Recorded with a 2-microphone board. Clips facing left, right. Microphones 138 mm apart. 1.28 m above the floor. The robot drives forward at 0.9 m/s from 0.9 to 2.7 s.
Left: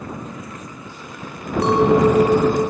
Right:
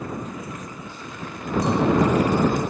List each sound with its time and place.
1.6 s a clink: 70° left (ahead or behind); by 2.7 s 75° left (ahead or behind)